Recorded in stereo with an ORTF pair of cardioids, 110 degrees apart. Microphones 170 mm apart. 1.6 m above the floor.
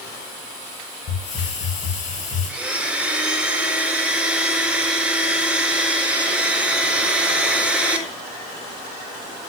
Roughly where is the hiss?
Ahead left.